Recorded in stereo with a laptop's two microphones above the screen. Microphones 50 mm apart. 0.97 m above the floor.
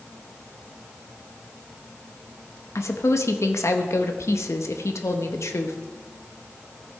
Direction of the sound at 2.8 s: 70° left (ahead or behind).